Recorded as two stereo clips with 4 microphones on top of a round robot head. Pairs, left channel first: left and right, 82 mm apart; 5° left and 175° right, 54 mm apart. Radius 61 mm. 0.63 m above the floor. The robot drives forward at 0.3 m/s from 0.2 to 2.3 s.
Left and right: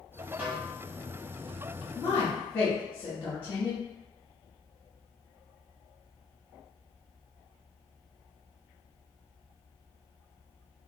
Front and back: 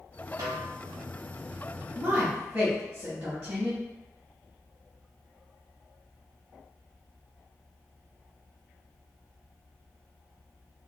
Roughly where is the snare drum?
Behind.